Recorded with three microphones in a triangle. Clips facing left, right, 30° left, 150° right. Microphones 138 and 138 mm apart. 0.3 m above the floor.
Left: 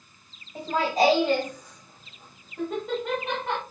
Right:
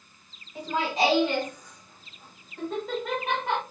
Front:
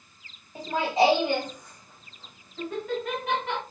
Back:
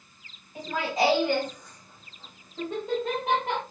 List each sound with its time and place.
0.6 s laughter: 75° left, 2 m; by 3.6 s 165° right, 2 m